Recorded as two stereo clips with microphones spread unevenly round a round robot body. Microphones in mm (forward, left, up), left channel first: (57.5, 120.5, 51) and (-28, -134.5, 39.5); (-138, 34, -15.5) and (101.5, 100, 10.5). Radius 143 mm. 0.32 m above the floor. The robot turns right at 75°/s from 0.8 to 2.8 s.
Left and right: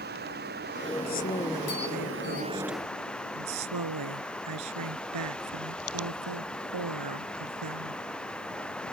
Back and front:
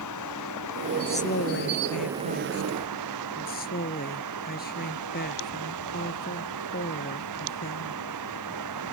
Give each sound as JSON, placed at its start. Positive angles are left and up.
{"t": 0.0, "sound": "running water", "azimuth_deg": -165}
{"t": 1.1, "sound": "a woman speaking", "azimuth_deg": 125}